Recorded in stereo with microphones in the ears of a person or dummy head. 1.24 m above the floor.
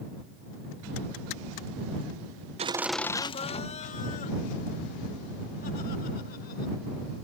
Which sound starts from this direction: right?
Laughter, at 2.6 s.